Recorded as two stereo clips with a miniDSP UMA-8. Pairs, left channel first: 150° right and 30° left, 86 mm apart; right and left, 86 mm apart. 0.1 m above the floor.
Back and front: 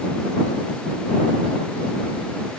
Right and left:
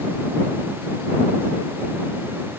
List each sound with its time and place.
Only background noise.